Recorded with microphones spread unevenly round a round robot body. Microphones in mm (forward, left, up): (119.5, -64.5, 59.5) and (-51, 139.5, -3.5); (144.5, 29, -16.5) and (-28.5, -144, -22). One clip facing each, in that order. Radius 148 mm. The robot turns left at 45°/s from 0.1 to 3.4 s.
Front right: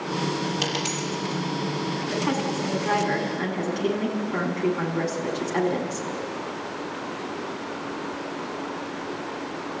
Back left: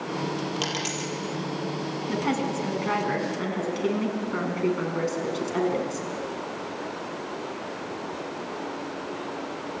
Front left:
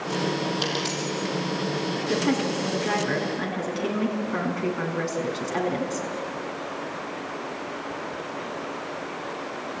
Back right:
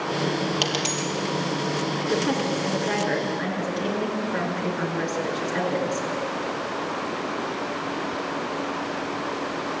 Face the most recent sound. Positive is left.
turn(degrees=45)